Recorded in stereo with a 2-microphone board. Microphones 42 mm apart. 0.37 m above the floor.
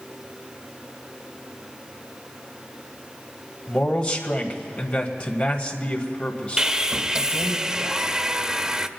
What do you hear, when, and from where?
3.7 s a man speaking: 30° left (ahead or behind), 1.9 m
6.6 s sawing: 20° right (ahead or behind), 0.5 m